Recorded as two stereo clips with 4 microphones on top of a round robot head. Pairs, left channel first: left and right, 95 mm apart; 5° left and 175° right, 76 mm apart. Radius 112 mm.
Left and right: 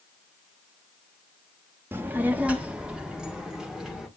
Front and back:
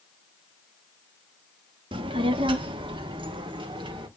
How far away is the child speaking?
About 0.9 m.